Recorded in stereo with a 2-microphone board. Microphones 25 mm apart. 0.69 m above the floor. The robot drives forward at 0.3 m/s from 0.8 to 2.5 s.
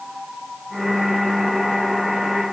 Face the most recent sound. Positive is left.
No sound to turn to.